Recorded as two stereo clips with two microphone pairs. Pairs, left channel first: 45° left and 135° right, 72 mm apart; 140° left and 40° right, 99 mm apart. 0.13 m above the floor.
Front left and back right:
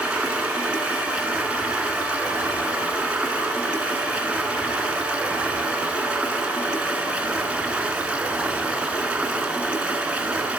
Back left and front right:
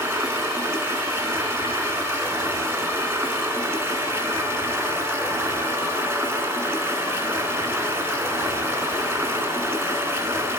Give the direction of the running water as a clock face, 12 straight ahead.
3 o'clock.